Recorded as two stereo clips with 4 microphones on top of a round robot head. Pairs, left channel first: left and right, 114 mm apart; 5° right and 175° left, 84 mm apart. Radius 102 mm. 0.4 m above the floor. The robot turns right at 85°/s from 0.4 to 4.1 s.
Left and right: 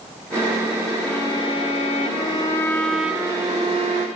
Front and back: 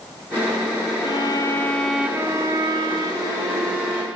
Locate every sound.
1.0 s a violin: 15° left, 0.7 m; by 4.1 s 85° right, 0.7 m